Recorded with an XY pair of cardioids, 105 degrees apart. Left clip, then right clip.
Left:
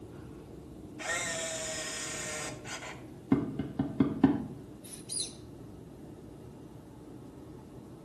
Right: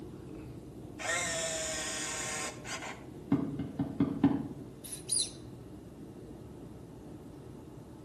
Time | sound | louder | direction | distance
1.0 | a camera shutter | right 1 dB | 20° right | 1.5 m
3.3 | tapping | left 2 dB | 30° left | 1.4 m
4.8 | a squeak | right 3 dB | 55° right | 2.5 m